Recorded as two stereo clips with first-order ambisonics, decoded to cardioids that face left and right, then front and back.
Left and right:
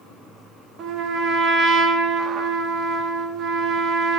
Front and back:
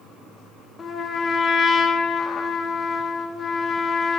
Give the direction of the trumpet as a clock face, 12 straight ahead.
2 o'clock.